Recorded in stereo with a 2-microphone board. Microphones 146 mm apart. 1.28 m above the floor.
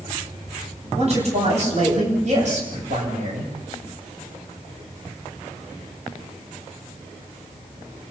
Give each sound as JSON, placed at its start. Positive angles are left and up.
{"t": 0.9, "sound": "a man speaking", "side_deg": -45, "distance_m": 9.5}